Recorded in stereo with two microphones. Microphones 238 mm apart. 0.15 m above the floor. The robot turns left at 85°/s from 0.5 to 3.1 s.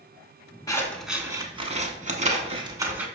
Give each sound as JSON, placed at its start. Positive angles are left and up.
{"t": 0.7, "sound": "scissors", "side_deg": 15, "distance_m": 0.5}